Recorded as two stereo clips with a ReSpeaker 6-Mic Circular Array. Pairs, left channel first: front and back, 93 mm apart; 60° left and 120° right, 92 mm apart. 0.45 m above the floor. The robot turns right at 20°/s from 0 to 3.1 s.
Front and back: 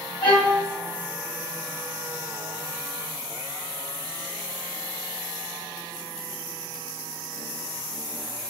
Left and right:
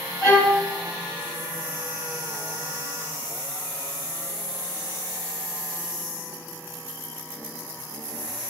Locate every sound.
0.2 s a violin: straight ahead, 2 m; by 0.6 s 10° left, 2 m